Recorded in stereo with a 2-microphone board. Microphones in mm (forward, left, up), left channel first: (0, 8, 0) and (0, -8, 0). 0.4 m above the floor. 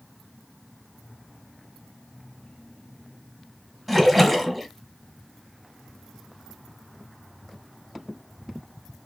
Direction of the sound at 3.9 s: 5° right (ahead or behind).